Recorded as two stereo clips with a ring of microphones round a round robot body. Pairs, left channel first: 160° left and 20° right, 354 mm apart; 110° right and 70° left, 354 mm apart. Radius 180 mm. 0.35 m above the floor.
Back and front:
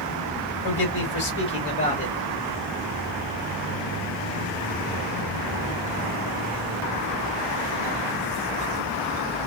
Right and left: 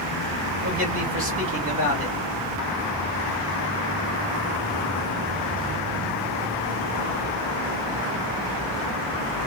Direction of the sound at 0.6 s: 110° left.